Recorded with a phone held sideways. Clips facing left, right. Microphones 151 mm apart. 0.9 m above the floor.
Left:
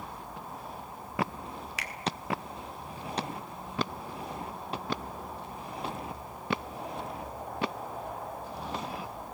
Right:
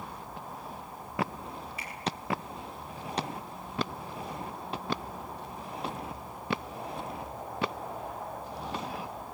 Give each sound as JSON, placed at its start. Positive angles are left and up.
{"t": 1.8, "sound": "a finger snap", "side_deg": 85, "distance_m": 1.9}